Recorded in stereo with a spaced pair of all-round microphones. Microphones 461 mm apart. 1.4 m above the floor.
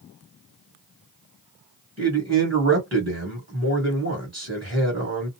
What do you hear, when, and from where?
2.0 s a man speaking: 25° right (ahead or behind), 1.5 m